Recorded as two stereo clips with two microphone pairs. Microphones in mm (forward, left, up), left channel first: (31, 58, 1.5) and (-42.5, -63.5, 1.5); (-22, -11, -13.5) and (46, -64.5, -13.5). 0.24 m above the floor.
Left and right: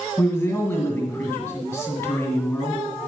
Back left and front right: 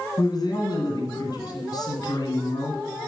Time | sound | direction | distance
0.2 | a man speaking | 130° left | 1.9 m